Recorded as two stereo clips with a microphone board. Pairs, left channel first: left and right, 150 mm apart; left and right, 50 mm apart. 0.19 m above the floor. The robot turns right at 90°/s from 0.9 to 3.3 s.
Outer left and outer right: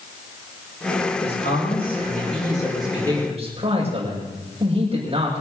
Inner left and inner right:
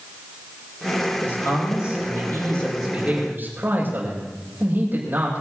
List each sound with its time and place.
1.2 s a man speaking: 30° left, 7 m; by 5.4 s 140° right, 7 m